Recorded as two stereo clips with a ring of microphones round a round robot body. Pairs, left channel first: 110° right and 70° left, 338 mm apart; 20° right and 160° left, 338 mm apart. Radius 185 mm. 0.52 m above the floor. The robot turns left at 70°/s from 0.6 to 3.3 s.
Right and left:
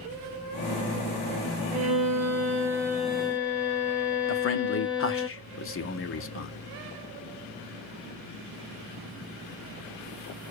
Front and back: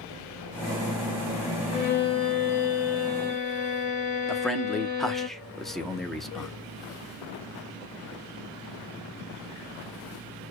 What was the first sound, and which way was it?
A violin, 55° left.